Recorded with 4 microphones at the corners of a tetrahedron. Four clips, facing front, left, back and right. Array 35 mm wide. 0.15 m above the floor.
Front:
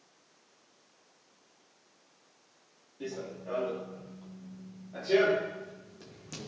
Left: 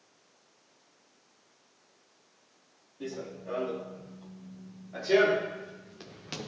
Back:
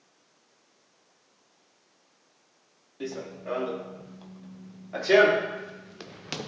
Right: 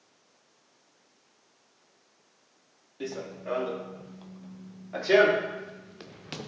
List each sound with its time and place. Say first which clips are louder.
3.0 s running footsteps: right 3 dB, back 3 dB; 130° right, 2.5 m; by 6.5 s 175° right, 1.2 m